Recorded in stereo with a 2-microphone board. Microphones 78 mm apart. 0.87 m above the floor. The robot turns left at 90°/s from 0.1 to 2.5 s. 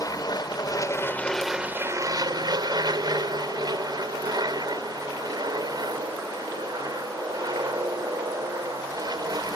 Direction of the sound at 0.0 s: 120° left.